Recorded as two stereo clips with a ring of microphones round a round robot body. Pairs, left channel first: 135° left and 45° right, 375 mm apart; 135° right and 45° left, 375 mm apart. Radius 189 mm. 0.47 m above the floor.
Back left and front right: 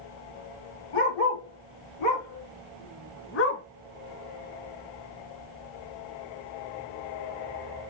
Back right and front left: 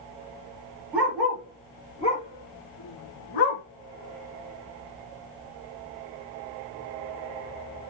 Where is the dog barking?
130° left, 3 m; by 3.6 s 160° right, 1.8 m.